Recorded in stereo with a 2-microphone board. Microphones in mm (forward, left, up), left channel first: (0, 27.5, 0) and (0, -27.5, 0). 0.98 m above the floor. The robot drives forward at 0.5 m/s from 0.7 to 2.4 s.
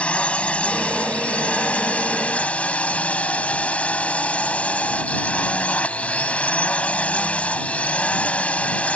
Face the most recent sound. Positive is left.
turn(degrees=25)  # may be behind; listen again after turning